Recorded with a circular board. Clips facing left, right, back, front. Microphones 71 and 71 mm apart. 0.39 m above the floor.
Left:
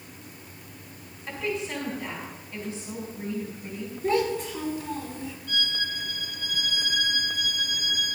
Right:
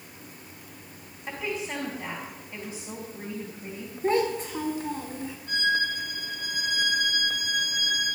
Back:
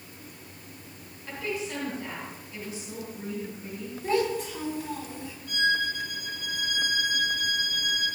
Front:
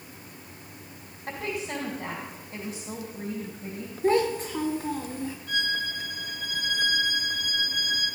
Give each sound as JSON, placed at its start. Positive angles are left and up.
{"t": 1.3, "sound": "a woman speaking", "azimuth_deg": -25, "distance_m": 2.5}
{"t": 4.0, "sound": "a child speaking", "azimuth_deg": -45, "distance_m": 2.5}
{"t": 5.5, "sound": "a violin", "azimuth_deg": -40, "distance_m": 4.5}